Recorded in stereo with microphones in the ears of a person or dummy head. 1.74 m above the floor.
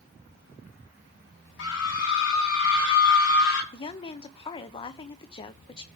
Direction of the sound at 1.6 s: 75° left (ahead or behind).